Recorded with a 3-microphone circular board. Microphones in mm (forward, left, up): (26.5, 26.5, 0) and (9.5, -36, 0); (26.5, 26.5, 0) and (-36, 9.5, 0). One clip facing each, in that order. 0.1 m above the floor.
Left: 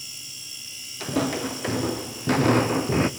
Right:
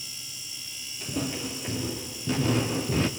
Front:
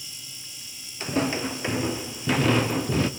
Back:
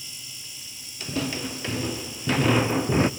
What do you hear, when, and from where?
1.0 s footsteps: 70° left, 1.4 m; by 3.1 s 135° left, 0.8 m